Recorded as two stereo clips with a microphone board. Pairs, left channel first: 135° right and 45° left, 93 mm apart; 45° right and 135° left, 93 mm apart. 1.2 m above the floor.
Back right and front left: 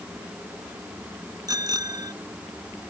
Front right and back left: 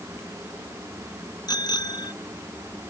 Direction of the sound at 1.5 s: 5° right.